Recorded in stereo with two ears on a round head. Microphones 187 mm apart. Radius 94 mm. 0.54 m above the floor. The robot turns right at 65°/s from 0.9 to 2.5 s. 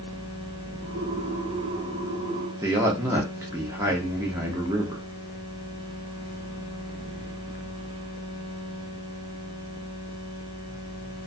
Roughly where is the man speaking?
Centre.